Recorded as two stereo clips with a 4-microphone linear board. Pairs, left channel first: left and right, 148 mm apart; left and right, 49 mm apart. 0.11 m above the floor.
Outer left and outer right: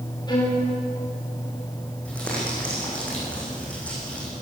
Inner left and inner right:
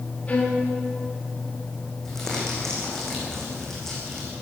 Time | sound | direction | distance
0.3 | a violin | 30° left (ahead or behind) | 6.5 m
2.0 | crumpling | 10° left (ahead or behind) | 8 m